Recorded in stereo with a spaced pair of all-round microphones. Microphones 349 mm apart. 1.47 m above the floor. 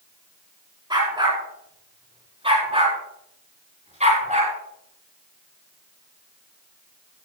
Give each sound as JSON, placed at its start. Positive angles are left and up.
{"t": 0.9, "sound": "a dog barking", "side_deg": -15, "distance_m": 7.5}